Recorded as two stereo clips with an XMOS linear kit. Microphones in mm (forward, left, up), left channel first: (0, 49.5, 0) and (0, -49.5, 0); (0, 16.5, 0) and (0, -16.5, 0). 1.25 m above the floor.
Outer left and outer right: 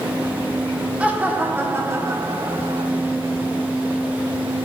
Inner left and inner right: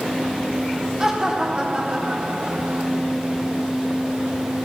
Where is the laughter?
15° right (ahead or behind), 4 m; by 2.9 s 50° right (ahead or behind), 2.5 m.